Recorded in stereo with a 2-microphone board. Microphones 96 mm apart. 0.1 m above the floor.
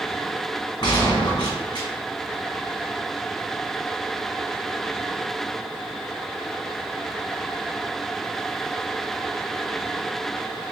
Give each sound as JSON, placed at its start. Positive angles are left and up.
{"t": 0.8, "sound": "a gunshot", "side_deg": 50, "distance_m": 1.4}